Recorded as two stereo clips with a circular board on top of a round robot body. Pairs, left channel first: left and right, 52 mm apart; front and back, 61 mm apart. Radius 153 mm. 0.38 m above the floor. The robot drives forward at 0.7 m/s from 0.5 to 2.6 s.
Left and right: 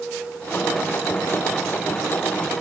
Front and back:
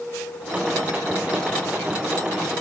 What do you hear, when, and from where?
Only background noise.